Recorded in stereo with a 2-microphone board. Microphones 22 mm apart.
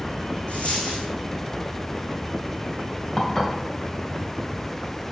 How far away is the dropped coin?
About 3.5 m.